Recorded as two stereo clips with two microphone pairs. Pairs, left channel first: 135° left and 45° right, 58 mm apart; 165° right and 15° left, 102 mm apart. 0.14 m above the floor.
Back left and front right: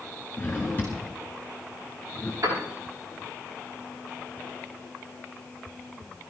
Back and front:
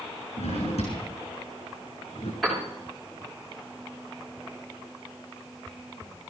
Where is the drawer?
160° right, 5 m.